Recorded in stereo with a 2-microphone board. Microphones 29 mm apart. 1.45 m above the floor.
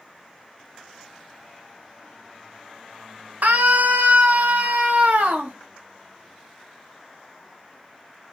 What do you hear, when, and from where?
3.4 s a scream: 85° right, 1.7 m; by 5.5 s 65° right (ahead or behind), 2.5 m